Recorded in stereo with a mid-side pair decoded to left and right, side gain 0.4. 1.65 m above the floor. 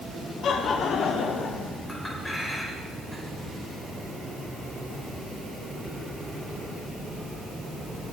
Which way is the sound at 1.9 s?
15° left.